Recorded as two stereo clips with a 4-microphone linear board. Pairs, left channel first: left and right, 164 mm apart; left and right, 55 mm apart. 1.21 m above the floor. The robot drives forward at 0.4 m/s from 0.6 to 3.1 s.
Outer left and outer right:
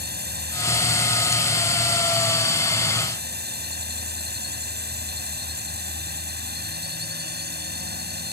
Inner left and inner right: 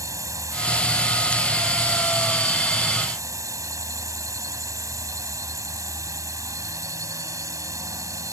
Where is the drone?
80° right; by 8.3 s 85° right.